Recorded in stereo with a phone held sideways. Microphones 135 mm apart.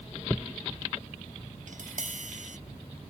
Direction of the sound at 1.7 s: 70° right (ahead or behind).